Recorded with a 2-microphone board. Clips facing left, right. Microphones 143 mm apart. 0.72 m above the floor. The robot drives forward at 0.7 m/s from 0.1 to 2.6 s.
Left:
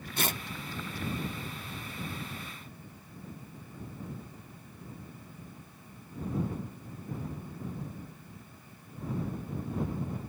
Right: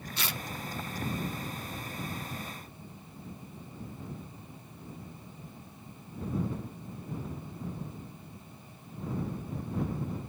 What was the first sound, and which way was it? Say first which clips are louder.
Tearing paper: left 5 dB; 50° left (ahead or behind).